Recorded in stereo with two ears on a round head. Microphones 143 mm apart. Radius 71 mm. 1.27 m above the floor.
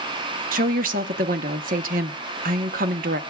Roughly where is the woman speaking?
Right.